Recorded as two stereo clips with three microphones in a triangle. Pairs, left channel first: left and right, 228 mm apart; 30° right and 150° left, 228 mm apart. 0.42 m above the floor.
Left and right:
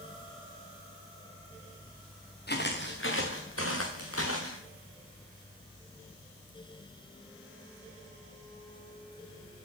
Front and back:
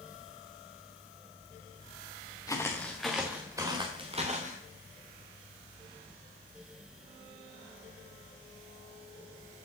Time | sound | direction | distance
2.5 | footsteps | 45° left | 2.5 m